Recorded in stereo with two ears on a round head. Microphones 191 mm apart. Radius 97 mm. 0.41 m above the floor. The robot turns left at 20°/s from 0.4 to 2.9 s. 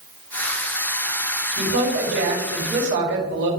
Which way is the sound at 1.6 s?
70° right (ahead or behind).